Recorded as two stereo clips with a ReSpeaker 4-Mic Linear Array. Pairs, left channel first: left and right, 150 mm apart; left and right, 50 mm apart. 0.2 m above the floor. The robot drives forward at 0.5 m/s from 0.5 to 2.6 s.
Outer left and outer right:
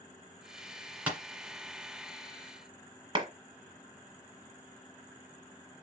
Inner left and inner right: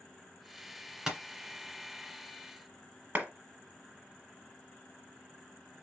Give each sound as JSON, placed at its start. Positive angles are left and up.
{"t": 1.1, "sound": "tapping", "side_deg": -10, "distance_m": 1.8}
{"t": 3.1, "sound": "a clap", "side_deg": -35, "distance_m": 1.2}